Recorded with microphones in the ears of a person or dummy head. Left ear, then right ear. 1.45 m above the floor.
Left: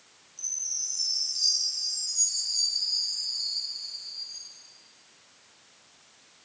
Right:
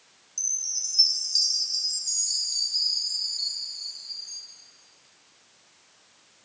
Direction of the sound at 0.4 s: 45° right (ahead or behind).